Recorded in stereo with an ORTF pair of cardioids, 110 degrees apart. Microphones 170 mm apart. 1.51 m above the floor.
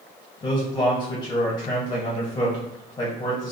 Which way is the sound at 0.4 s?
25° left.